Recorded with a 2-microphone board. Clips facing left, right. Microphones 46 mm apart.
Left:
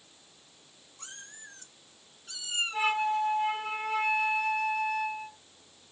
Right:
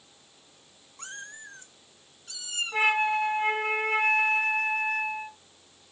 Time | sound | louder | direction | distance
1.0 | a cat meowing | right 7 dB | 50° right (ahead or behind) | 1.1 m
2.7 | a flute | right 4 dB | 55° right (ahead or behind) | 1.5 m